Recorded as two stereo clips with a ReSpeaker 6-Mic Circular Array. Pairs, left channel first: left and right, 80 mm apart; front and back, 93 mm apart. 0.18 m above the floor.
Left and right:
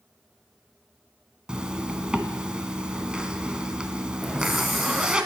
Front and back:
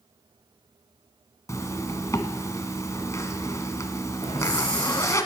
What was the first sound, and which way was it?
A zipper, 20° right.